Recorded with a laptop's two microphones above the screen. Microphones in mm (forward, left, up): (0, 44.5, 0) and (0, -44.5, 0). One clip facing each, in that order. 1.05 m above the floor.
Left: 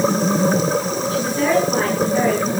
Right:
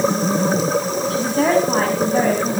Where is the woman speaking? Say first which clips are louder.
Right 1 dB; 70° right (ahead or behind), 7 m; by 2.6 s 65° right (ahead or behind), 5.5 m.